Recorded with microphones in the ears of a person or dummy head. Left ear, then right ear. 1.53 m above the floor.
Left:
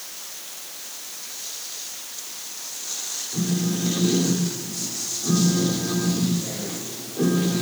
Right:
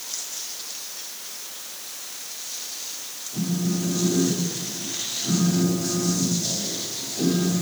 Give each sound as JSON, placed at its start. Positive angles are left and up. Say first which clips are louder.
{"t": 3.3, "sound": "a phone buzzing", "louder": "right 1 dB", "side_deg": 40, "distance_m": 1.4}